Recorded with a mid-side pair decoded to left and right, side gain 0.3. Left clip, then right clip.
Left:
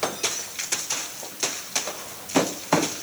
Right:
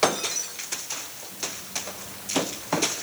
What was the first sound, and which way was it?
Only background noise.